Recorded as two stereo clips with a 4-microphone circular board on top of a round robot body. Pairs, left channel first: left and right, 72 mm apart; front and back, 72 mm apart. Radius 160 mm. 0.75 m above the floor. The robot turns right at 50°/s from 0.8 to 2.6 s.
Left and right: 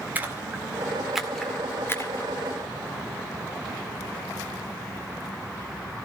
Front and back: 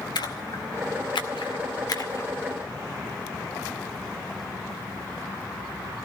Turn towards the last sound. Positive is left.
turn(degrees=70)